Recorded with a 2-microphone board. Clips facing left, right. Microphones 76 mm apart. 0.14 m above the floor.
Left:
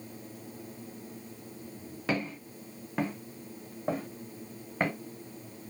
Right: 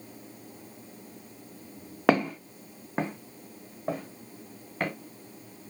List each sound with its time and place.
2.1 s footsteps: 75° right (ahead or behind), 0.6 m; by 4.9 s 20° left (ahead or behind), 1.3 m